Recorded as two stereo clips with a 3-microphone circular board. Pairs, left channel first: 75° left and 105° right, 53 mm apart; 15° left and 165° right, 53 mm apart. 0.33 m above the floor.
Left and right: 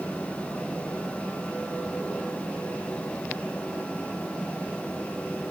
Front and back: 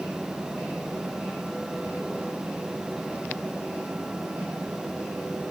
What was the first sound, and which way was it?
Only background noise.